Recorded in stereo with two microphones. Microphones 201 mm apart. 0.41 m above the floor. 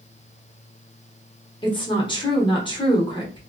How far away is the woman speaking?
About 0.8 m.